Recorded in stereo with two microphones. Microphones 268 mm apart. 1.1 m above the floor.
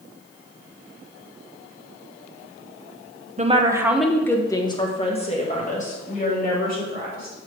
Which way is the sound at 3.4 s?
25° right (ahead or behind).